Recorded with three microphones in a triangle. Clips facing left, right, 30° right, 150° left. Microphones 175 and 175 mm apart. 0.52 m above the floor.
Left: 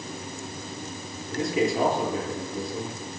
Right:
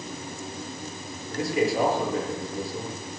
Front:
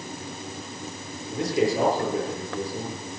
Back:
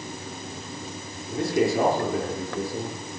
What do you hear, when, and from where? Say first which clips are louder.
1.3 s a man speaking: even, back 1 dB; 160° left, 9 m